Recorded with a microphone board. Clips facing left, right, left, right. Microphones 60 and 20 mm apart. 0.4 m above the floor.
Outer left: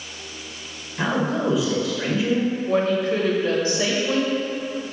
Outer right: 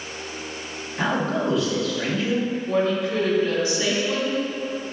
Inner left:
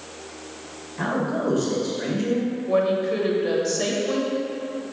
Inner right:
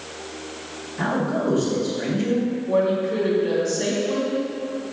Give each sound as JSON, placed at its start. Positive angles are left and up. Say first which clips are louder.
{"t": 1.0, "sound": "a man speaking", "louder": "outer left 1 dB, inner right 1 dB", "side_deg": 10, "distance_m": 1.9}
{"t": 2.7, "sound": "a woman speaking", "louder": "outer left 1 dB, even", "side_deg": 50, "distance_m": 1.6}